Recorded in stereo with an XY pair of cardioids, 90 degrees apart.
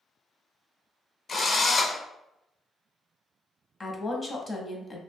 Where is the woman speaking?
30° left, 0.6 m.